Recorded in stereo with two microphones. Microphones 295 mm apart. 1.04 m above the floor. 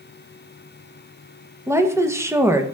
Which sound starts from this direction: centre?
A woman speaking, at 1.7 s.